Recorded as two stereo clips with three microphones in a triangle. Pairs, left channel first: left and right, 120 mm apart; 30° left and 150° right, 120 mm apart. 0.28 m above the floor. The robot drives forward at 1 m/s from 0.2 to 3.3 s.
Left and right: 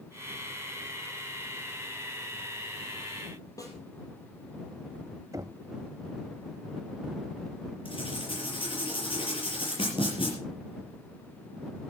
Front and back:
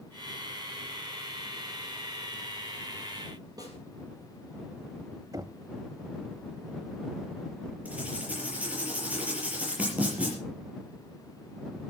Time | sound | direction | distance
3.6 | a snare drum | 150° left | 4 m
5.3 | knocking | 125° right | 0.7 m
7.8 | writing | 130° left | 6.5 m